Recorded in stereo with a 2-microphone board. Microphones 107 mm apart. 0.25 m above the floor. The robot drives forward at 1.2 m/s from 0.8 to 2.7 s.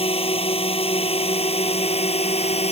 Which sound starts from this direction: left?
A drone, at 0.0 s.